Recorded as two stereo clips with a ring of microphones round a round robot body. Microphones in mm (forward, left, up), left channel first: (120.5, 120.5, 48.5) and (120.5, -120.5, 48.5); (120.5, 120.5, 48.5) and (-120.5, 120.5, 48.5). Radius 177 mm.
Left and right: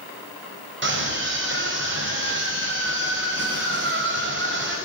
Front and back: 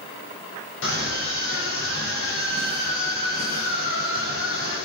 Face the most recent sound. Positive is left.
turn(degrees=-50)